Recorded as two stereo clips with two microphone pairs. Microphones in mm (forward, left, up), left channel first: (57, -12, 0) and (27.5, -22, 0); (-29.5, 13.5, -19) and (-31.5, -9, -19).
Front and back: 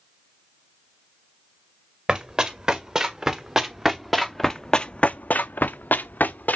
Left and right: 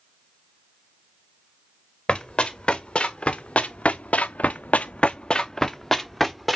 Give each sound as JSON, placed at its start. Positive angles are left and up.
{"t": 2.1, "sound": "running footsteps", "azimuth_deg": 135, "distance_m": 2.5}